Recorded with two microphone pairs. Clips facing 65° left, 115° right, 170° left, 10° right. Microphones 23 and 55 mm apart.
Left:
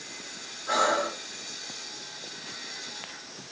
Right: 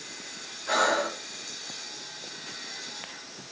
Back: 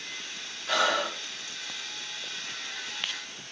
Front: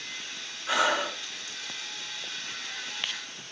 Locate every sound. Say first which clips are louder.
0.7 s breathing: even, even; 85° right, 2.5 m